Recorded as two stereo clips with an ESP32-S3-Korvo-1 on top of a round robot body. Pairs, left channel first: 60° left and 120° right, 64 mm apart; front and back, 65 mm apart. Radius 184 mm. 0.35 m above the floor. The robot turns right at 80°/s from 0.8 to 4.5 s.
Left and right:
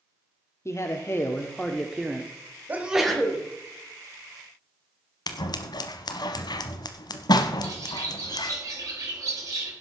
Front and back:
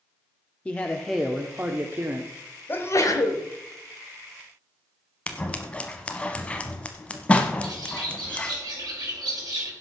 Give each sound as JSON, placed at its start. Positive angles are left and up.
{"t": 0.7, "sound": "a man speaking", "azimuth_deg": 65, "distance_m": 1.3}
{"t": 2.7, "sound": "a sneeze", "azimuth_deg": -60, "distance_m": 2.5}
{"t": 5.3, "sound": "scissors", "azimuth_deg": 75, "distance_m": 0.8}
{"t": 7.6, "sound": "a bird", "azimuth_deg": -160, "distance_m": 4.5}